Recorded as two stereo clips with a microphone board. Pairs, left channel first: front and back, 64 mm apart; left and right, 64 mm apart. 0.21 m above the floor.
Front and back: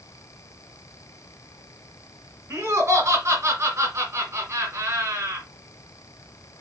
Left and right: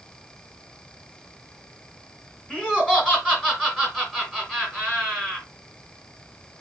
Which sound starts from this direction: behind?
Laughter, at 2.5 s.